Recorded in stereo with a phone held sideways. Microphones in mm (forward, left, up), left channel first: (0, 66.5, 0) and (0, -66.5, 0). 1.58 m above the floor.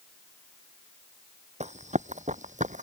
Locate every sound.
1.6 s running footsteps: 60° right (ahead or behind); by 2.8 s 65° right (ahead or behind)